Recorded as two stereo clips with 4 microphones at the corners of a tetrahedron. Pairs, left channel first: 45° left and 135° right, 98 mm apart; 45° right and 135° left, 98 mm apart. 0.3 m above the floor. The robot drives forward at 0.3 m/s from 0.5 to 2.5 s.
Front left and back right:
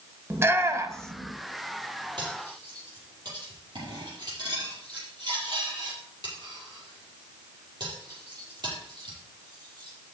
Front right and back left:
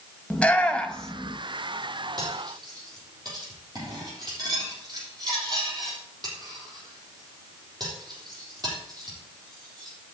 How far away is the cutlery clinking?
About 6 m.